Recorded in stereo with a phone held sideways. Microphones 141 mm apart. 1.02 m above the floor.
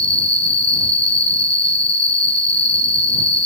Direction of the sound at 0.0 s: 40° left (ahead or behind).